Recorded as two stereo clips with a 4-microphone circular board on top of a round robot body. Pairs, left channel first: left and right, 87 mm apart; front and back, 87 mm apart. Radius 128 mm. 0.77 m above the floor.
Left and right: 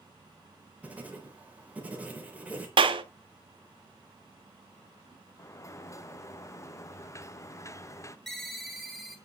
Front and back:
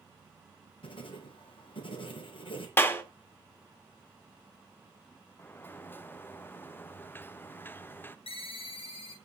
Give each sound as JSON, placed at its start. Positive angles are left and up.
{"t": 0.8, "sound": "writing", "azimuth_deg": -15, "distance_m": 4.0}
{"t": 2.8, "sound": "a clap", "azimuth_deg": -65, "distance_m": 1.7}
{"t": 5.4, "sound": "a sliding door", "azimuth_deg": 55, "distance_m": 1.2}
{"t": 8.3, "sound": "a ringtone", "azimuth_deg": 5, "distance_m": 3.5}